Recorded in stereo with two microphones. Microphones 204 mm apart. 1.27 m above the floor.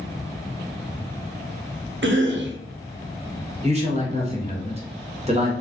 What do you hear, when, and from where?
2.0 s a cough: 65° right (ahead or behind), 0.6 m
3.6 s a man speaking: 30° right (ahead or behind), 0.9 m